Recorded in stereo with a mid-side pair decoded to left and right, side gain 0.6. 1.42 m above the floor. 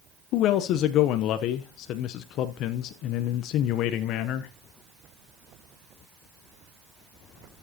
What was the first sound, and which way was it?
A man speaking, 65° left.